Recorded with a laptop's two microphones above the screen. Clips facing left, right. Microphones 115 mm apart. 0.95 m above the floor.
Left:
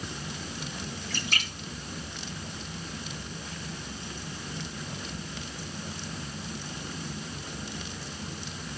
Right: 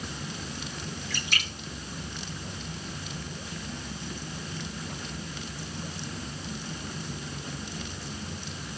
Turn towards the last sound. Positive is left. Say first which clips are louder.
# even
turn(degrees=40)  # may be behind; listen again after turning